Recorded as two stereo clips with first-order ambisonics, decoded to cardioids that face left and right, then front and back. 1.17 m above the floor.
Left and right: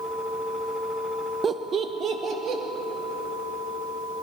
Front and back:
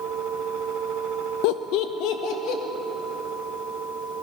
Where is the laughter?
20° right, 0.6 m; by 2.6 s 35° right, 2 m.